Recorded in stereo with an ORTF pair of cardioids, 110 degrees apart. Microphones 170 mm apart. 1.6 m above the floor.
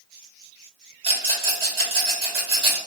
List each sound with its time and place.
1.0 s a rattle: 35° right, 1.8 m